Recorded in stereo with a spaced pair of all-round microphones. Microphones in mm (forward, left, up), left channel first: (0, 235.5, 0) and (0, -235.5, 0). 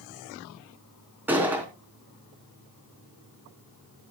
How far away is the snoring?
I don't hear snoring.